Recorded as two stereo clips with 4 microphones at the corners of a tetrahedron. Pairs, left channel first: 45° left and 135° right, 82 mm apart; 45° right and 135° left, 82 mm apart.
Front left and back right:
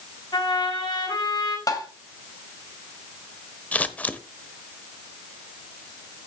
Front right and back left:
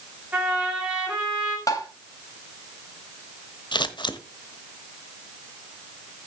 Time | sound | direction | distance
0.3 | a trumpet | 55° left | 6 m
1.7 | tapping | straight ahead | 2.5 m
3.7 | scissors | 30° right | 1.1 m